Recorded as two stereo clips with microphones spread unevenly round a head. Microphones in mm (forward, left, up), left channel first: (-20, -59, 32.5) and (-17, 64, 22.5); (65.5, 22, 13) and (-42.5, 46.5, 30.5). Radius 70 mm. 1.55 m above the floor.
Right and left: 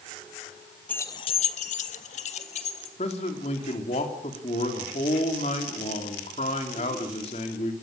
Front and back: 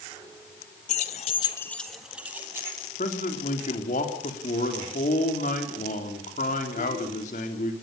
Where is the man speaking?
45° right, 3.5 m.